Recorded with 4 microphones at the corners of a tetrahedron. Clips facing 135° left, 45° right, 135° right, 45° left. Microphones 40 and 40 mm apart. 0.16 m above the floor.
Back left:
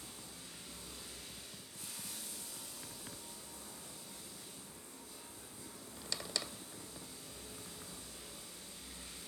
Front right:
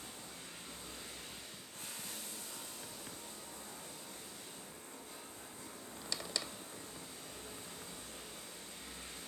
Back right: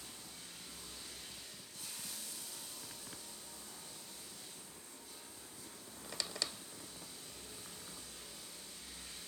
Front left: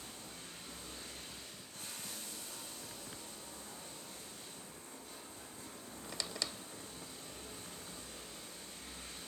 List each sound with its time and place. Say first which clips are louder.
0.0 s running water: front right 2 dB, front left 3 dB; straight ahead, 3.5 m